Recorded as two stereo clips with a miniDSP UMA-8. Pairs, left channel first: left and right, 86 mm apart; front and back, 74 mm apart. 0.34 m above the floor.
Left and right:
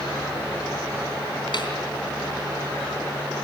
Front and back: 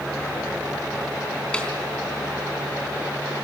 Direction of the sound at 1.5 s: 75° left.